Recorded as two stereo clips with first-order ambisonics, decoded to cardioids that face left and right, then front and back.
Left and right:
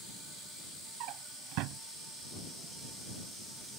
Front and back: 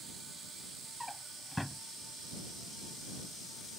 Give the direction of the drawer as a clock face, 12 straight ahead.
3 o'clock.